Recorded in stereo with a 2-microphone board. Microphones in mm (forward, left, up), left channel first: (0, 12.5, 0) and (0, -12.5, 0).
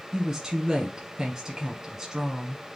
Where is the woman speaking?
20° right (ahead or behind), 1.1 m.